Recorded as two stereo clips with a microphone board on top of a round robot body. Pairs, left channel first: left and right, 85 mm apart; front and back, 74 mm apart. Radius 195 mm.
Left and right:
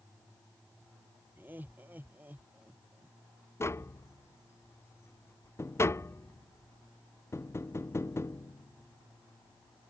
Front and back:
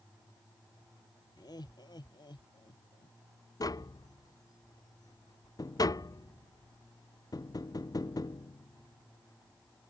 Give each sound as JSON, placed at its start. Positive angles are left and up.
{"t": 1.4, "sound": "laughter", "azimuth_deg": -20}
{"t": 3.6, "sound": "tapping", "azimuth_deg": 30}